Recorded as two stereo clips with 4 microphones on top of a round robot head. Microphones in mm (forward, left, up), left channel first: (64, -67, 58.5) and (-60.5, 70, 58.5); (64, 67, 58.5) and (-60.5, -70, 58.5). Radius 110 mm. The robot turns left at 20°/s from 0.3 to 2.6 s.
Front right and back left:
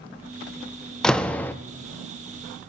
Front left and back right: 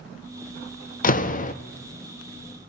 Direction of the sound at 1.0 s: 40° left.